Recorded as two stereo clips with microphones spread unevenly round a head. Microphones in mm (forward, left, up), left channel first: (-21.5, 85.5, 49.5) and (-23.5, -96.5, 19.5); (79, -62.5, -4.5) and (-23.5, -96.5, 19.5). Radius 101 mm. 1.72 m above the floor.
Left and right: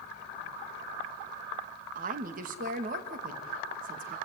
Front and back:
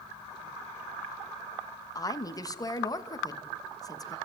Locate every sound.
1.9 s a woman speaking: 40° right, 2.5 m